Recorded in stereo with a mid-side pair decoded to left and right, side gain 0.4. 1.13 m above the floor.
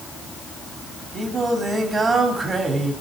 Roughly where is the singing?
Ahead right.